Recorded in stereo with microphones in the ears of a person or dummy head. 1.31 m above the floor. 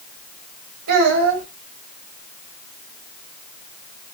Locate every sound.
0.9 s a child speaking: 60° right (ahead or behind), 1.5 m